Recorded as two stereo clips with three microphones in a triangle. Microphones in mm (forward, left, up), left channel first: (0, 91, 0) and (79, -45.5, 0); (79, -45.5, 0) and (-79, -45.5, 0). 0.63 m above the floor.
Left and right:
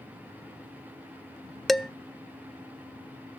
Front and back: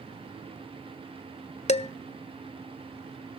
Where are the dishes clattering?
30° left, 0.5 m.